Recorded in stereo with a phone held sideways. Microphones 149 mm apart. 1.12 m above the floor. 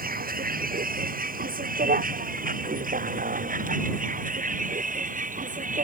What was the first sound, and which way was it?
A vehicle, 80° right.